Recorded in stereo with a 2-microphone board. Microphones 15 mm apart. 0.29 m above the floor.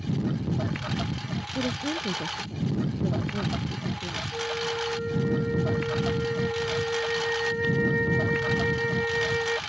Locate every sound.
0.0 s a lawn mower: 10° right (ahead or behind)
1.6 s a woman speaking: centre (ahead or behind)
4.3 s a flute: 70° right (ahead or behind)